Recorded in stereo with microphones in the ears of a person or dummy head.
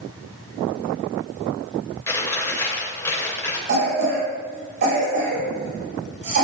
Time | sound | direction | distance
2.1 | chewing | 15° left (ahead or behind) | 3 m
3.7 | a cough | 50° right (ahead or behind) | 5 m